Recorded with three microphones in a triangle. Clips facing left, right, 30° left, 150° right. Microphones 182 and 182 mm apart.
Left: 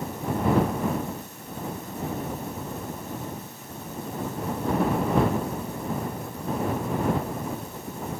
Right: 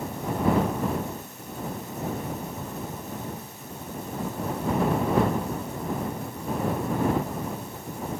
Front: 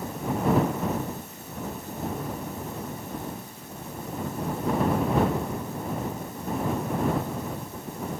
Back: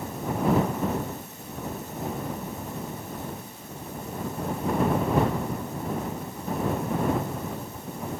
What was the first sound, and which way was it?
Only background noise.